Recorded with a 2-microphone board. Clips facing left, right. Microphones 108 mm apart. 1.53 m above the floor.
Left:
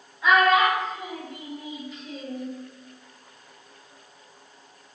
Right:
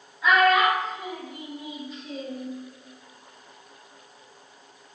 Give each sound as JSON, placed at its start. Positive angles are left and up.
{"t": 0.2, "sound": "a child speaking", "side_deg": 5, "distance_m": 1.8}